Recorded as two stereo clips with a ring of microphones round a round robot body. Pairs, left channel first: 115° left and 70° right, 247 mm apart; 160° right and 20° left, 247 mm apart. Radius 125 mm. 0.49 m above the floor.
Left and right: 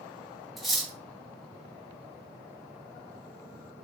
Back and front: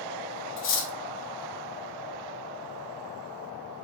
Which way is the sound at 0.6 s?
160° right.